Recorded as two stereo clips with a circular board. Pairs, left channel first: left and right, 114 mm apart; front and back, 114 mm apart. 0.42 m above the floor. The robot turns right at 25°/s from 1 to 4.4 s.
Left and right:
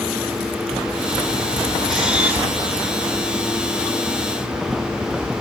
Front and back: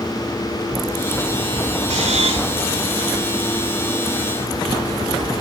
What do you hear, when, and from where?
1.9 s a camera shutter: 175° right, 5.5 m; by 2.5 s 165° right, 5.5 m